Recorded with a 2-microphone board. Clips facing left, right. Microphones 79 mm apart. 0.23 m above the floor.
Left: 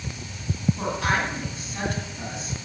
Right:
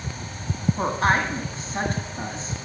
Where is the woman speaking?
40° right (ahead or behind), 1.9 m.